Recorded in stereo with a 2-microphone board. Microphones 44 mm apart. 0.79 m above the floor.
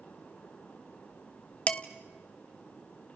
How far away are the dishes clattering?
About 1.1 m.